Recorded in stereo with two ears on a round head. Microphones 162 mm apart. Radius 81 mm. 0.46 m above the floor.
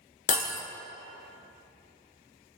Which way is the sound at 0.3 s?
45° left (ahead or behind).